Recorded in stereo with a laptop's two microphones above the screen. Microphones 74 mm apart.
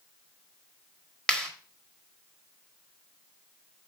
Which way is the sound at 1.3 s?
10° left (ahead or behind).